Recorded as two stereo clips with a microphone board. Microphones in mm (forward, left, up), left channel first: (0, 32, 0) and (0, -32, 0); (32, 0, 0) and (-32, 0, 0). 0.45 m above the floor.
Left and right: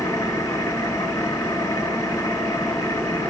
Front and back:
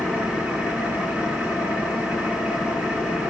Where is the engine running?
110° left, 5.5 m.